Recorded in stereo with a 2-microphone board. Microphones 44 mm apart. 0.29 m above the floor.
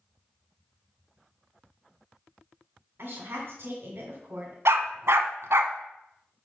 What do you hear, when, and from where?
3.0 s a woman speaking: 50° right (ahead or behind), 1.8 m
4.7 s a dog barking: 75° right (ahead or behind), 0.7 m